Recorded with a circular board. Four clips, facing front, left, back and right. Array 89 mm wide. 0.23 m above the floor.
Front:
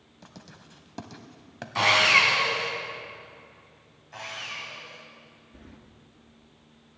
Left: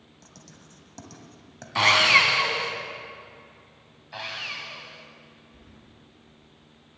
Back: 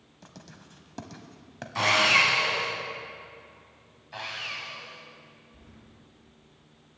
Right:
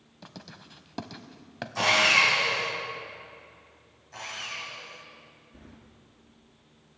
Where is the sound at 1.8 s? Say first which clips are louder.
Left 3 dB, front 1 dB; 75° left, 2.0 m.